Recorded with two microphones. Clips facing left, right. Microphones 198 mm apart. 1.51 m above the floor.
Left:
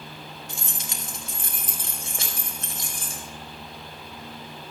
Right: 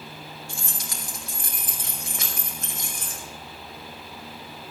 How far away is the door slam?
I don't hear a door slam.